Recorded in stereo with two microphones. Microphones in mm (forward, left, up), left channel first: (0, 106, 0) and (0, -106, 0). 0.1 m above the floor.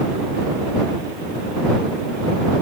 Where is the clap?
I don't hear a clap.